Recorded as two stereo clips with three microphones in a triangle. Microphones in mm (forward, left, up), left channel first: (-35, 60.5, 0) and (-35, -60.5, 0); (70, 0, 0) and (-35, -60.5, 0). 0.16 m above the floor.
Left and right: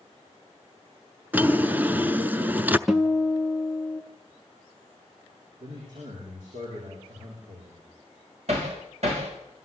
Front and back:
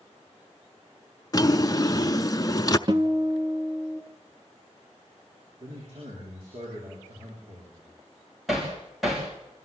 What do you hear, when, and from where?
1.3 s a drawer: 20° right, 0.6 m
2.9 s a guitar: 175° right, 1.0 m
5.6 s a man speaking: 105° right, 9.5 m
8.5 s hammering: 60° right, 6 m